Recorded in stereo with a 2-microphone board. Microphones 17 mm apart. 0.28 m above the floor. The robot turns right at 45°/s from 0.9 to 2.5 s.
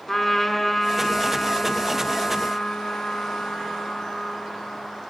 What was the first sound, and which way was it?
A trumpet, 10° left.